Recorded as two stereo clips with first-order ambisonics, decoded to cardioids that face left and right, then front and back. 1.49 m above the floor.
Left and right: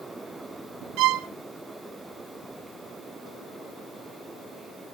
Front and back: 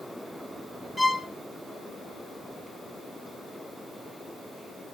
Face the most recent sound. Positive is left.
turn(degrees=-85)